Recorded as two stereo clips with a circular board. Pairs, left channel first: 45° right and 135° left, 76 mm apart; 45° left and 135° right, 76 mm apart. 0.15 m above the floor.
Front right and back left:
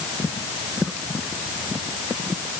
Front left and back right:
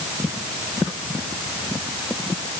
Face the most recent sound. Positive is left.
No sound to turn to.